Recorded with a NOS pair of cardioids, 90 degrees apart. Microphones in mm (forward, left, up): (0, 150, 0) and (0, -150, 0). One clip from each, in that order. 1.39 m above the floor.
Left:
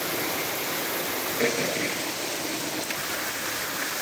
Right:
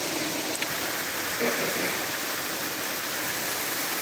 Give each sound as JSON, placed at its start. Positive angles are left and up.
{"t": 1.4, "sound": "throat clearing", "azimuth_deg": 25, "distance_m": 9.0}